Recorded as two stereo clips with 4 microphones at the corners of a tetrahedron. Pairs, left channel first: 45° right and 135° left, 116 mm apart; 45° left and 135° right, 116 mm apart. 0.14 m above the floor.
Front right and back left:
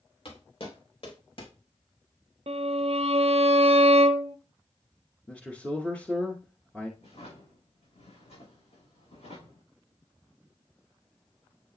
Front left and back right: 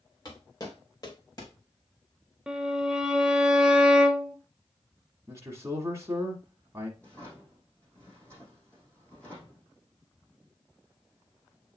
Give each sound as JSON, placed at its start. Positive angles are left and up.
{"t": 0.2, "sound": "footsteps", "azimuth_deg": -10, "distance_m": 2.5}
{"t": 2.5, "sound": "a violin", "azimuth_deg": 140, "distance_m": 0.5}
{"t": 5.3, "sound": "a man speaking", "azimuth_deg": -115, "distance_m": 1.2}
{"t": 7.0, "sound": "a drawer", "azimuth_deg": -30, "distance_m": 5.0}